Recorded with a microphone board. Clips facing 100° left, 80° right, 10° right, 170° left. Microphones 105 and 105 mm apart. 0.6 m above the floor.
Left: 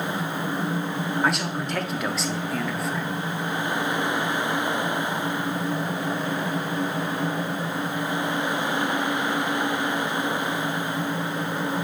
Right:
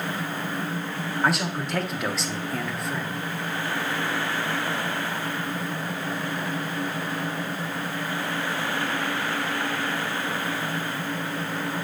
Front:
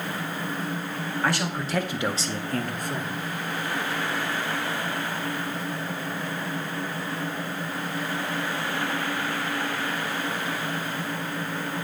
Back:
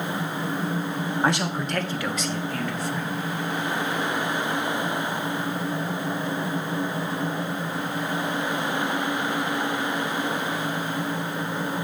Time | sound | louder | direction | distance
1.2 | a man speaking | right 3 dB, back 2 dB | 165° right | 0.6 m